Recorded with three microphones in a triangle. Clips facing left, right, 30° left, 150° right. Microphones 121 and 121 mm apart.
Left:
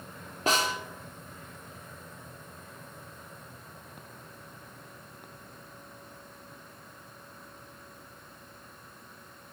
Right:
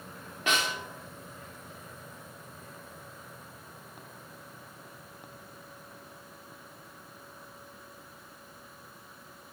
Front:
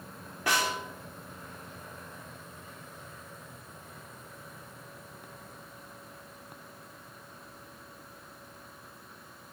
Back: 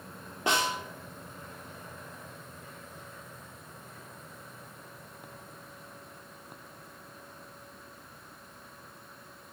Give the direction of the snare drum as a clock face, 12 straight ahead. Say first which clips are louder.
Left 3 dB, back 1 dB; 7 o'clock.